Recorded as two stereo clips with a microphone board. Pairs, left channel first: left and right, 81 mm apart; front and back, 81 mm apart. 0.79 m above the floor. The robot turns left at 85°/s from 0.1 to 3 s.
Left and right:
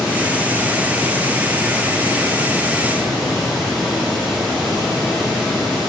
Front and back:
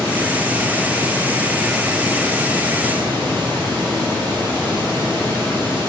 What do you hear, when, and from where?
0.0 s running water: 65° left, 4.5 m; by 5.9 s straight behind, 4.5 m